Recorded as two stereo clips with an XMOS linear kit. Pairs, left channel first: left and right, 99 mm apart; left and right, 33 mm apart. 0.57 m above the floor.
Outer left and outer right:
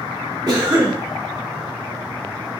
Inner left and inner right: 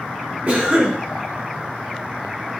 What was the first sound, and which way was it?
A cough, 40° right (ahead or behind).